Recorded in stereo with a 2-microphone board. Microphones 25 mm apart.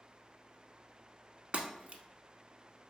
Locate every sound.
1.5 s breaking glass: 50° right (ahead or behind), 0.8 m